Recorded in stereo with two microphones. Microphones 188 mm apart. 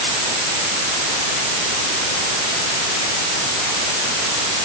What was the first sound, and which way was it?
Only background noise.